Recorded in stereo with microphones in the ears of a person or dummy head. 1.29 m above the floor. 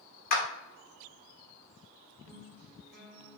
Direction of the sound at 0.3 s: 50° left (ahead or behind).